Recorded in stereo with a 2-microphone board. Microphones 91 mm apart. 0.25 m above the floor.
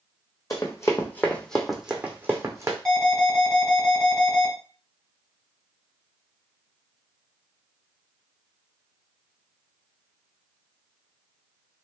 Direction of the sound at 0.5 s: 40° left (ahead or behind).